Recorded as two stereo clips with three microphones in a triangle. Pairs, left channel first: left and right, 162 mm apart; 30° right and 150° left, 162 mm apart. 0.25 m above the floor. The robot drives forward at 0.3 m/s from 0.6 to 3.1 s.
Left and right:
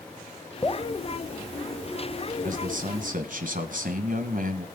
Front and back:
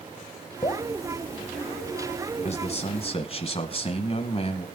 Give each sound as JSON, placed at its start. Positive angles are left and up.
{"t": 0.6, "sound": "dripping", "azimuth_deg": 20, "distance_m": 0.8}
{"t": 2.4, "sound": "a man speaking", "azimuth_deg": -70, "distance_m": 2.0}